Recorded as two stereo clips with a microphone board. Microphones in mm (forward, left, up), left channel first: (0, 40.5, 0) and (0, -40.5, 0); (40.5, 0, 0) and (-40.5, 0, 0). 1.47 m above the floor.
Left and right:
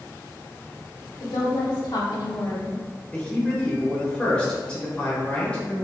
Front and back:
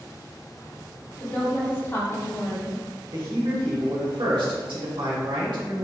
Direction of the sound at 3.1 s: 170° left.